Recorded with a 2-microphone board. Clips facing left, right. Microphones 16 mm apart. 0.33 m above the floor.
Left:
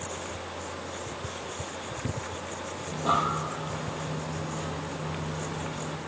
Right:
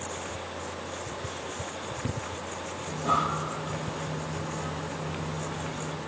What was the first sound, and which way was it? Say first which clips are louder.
Breathing: even; 35° left (ahead or behind).